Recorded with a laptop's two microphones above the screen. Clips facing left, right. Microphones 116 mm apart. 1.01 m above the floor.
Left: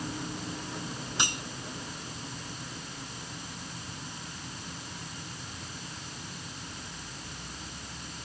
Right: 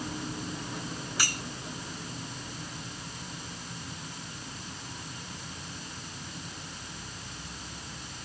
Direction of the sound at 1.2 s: 20° left (ahead or behind).